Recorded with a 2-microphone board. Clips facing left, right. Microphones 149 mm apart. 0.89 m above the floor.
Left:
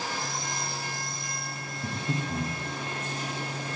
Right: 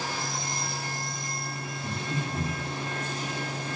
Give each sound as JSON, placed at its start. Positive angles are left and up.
{"t": 1.8, "sound": "breathing", "side_deg": 60, "distance_m": 0.8}